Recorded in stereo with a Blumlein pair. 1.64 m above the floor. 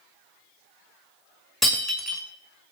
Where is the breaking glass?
Straight ahead, 5.5 m.